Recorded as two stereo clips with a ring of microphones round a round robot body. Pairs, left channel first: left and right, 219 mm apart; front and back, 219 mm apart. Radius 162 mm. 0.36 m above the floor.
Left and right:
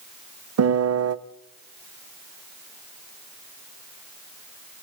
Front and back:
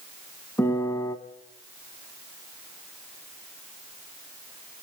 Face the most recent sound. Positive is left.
turn(degrees=-80)